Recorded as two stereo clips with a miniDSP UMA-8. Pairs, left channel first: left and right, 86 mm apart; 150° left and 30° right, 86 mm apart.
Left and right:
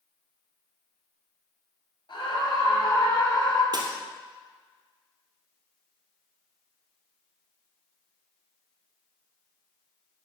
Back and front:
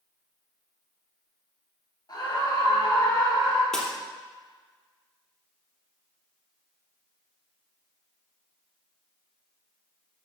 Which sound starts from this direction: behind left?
A scream, at 2.1 s.